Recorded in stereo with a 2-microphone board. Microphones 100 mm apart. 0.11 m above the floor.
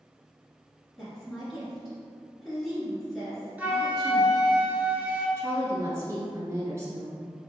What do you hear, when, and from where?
1.0 s a woman speaking: centre (ahead or behind), 1.7 m
3.6 s a flute: 15° right (ahead or behind), 1.1 m
5.4 s a woman speaking: 25° right (ahead or behind), 1.5 m